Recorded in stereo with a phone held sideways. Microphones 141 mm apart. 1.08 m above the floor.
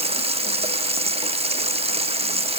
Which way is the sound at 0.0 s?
50° right (ahead or behind).